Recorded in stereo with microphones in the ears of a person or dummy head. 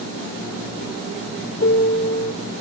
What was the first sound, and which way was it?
A piano, 65° left (ahead or behind).